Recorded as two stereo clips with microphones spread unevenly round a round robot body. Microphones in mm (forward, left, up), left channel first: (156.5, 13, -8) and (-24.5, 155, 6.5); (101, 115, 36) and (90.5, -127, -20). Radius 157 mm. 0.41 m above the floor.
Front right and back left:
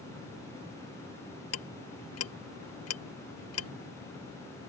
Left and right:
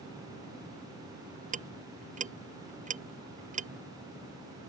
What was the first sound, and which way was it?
Ticking, 30° right.